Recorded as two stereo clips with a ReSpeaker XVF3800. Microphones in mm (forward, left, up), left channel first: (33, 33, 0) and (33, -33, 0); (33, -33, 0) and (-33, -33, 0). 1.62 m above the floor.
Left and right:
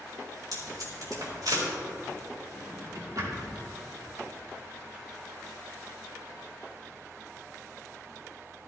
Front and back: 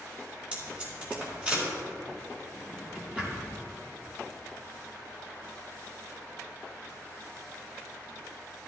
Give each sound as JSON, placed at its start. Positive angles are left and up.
{"t": 0.5, "sound": "tape being pulled", "azimuth_deg": -110, "distance_m": 3.5}
{"t": 2.5, "sound": "a drawer", "azimuth_deg": -110, "distance_m": 2.5}